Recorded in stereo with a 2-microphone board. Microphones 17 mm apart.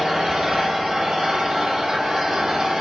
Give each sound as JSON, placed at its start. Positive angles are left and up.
{"t": 0.0, "sound": "an engine running", "side_deg": -45, "distance_m": 1.0}